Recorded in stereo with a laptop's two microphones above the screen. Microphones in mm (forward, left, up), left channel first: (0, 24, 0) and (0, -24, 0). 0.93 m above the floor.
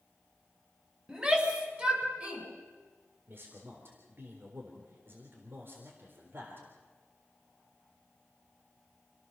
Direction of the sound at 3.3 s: 50° right (ahead or behind).